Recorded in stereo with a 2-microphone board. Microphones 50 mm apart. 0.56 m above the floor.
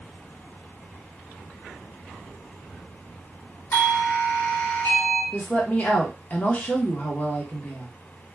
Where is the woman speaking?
35° left (ahead or behind), 0.9 m.